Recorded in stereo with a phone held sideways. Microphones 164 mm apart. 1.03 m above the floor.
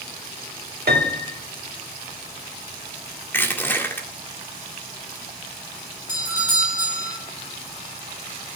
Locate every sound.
0.9 s a piano: 75° right (ahead or behind), 2 m
3.3 s crushing: 15° left (ahead or behind), 2.0 m
6.1 s a doorbell: 15° right (ahead or behind), 9 m